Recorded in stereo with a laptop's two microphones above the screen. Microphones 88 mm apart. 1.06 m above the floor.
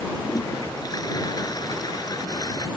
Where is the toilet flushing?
50° left (ahead or behind).